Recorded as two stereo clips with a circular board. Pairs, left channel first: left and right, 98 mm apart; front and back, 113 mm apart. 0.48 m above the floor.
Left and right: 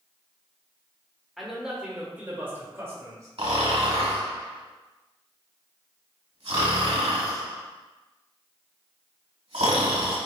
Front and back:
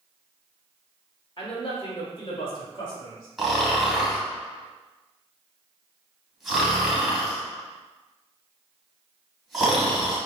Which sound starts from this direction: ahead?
A man speaking, at 1.4 s.